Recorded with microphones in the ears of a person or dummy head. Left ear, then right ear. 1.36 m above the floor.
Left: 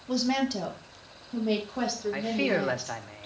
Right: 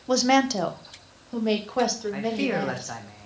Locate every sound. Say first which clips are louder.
0.1 s a woman speaking: right 7 dB; 55° right (ahead or behind), 0.7 m; by 3.0 s 70° right (ahead or behind), 2.5 m
2.1 s a man speaking: right 1 dB; 15° left (ahead or behind), 1.0 m